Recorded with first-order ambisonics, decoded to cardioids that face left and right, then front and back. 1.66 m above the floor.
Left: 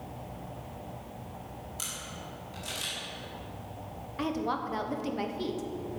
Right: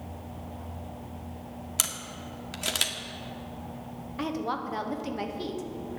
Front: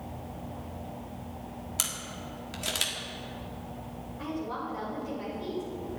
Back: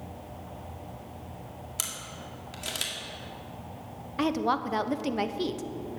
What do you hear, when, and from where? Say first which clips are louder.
1.8 s a camera shutter: right 7 dB, front 2 dB; 80° right, 1.6 m
4.2 s a woman speaking: even, back 9 dB; straight behind, 1.0 m